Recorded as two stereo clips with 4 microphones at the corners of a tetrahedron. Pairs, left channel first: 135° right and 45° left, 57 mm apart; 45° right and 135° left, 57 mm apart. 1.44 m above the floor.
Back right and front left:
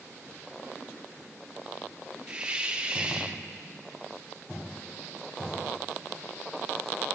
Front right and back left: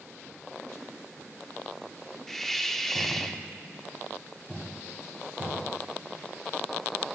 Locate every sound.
2.3 s a hiss: 25° left, 0.6 m